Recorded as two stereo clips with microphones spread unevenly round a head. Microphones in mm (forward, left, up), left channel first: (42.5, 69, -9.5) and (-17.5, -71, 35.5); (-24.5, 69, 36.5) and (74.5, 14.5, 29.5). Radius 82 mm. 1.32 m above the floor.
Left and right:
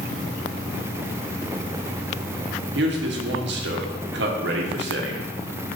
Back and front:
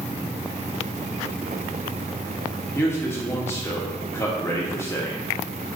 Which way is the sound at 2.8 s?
140° right.